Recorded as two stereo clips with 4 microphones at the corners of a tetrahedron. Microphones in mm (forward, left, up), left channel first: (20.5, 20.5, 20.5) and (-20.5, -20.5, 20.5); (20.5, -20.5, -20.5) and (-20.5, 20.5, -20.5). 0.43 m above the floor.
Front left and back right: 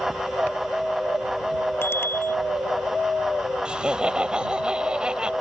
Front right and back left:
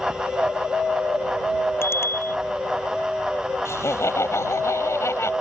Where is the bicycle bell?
Straight ahead.